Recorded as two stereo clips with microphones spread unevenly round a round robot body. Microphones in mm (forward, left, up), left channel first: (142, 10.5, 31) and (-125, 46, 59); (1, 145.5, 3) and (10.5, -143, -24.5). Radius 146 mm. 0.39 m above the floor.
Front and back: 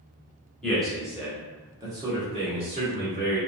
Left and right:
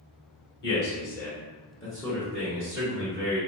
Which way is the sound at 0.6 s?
65° left.